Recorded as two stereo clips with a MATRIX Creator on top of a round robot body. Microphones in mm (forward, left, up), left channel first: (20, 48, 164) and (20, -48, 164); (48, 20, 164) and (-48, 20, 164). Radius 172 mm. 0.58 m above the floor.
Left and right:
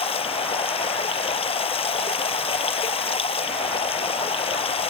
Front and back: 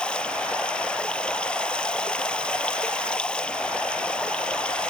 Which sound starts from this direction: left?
Running water, at 0.0 s.